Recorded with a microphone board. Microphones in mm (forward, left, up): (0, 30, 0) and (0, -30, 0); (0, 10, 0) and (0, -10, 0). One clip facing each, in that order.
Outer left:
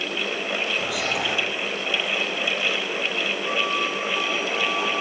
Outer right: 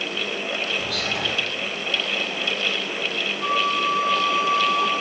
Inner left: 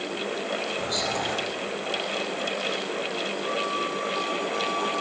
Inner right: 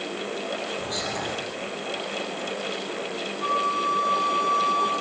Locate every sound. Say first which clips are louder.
0.8 s whispering: outer left 1 dB, inner left 2 dB; 15° left (ahead or behind), 3 m
3.4 s a flute: outer right 6 dB, inner right 7 dB; 70° right (ahead or behind), 1.7 m